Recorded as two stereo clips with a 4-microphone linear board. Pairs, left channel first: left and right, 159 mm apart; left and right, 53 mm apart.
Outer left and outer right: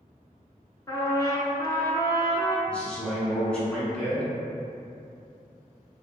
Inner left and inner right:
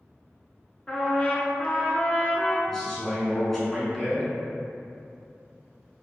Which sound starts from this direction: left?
A trumpet, at 0.9 s.